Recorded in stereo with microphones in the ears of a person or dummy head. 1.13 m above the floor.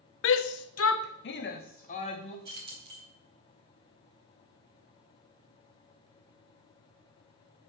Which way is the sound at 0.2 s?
65° left (ahead or behind).